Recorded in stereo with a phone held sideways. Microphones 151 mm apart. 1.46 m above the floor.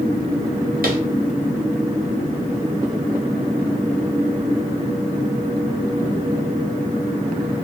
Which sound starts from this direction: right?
Tapping, at 0.8 s.